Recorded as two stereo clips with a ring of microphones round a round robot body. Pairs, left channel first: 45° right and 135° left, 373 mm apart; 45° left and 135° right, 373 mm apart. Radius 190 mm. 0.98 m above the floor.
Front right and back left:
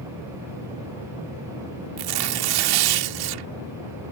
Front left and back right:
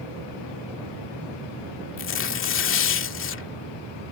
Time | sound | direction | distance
2.0 | tearing paper | 105° left | ?